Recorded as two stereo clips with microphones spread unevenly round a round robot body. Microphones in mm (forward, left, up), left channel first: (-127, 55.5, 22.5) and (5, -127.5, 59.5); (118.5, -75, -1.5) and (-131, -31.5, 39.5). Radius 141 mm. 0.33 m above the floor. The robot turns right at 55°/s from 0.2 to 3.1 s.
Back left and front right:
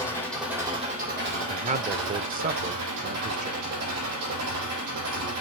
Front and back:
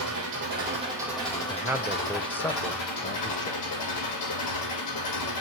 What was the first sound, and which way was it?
An engine running, 155° right.